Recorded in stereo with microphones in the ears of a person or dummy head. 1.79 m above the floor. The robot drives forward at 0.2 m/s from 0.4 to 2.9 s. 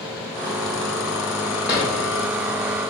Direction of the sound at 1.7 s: 10° right (ahead or behind).